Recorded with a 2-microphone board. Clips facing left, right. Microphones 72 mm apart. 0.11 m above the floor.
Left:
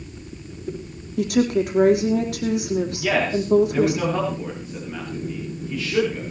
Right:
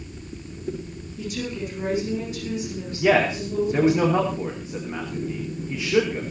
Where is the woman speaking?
75° left (ahead or behind), 5 m.